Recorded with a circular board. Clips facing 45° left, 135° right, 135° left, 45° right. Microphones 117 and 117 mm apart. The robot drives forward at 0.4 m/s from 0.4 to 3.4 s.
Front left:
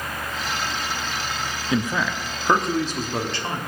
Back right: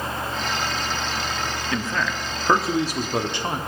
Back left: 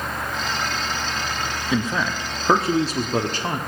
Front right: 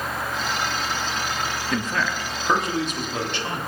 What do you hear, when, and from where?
1.7 s a man speaking: 70° left, 0.6 m; by 3.6 s 165° left, 0.9 m